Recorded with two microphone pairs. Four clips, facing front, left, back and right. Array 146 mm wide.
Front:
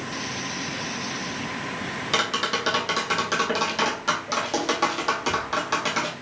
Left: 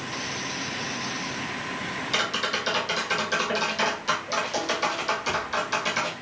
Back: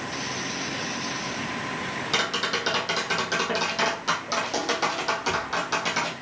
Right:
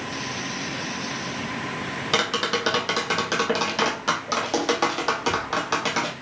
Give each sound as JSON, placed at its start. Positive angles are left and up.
{"t": 2.1, "sound": "tapping", "azimuth_deg": -85, "distance_m": 1.0}